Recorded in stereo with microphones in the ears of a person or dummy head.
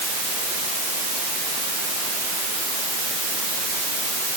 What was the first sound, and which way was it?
Only background noise.